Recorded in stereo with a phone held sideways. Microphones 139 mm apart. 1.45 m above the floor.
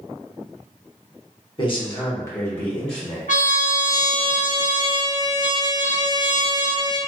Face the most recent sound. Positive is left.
turn(degrees=70)  # may be behind; listen again after turning